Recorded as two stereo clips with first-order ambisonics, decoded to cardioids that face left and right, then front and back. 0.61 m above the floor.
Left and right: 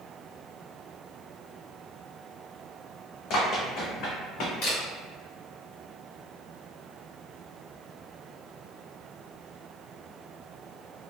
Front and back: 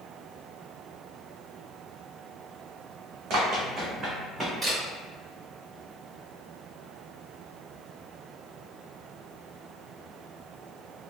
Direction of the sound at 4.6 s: 95° left.